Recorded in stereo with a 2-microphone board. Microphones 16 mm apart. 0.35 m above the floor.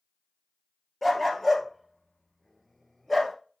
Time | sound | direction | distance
1.0 | a dog barking | 10° left (ahead or behind) | 1.8 m